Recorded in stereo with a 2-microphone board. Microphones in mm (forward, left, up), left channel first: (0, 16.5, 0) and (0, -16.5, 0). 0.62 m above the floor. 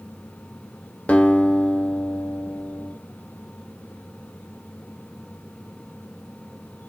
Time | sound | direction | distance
1.1 | a guitar | 40° left (ahead or behind) | 0.5 m